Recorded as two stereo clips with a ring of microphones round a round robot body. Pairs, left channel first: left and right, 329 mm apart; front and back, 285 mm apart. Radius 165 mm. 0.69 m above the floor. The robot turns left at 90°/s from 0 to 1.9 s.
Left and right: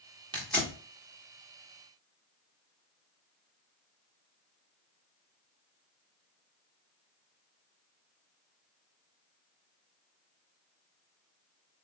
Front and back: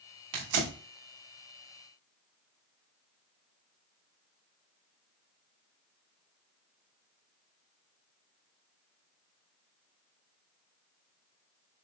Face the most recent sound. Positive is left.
turn(degrees=55)